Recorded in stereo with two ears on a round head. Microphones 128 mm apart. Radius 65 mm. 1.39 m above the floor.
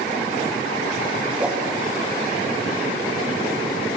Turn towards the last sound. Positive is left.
turn(degrees=-10)  # may be behind; listen again after turning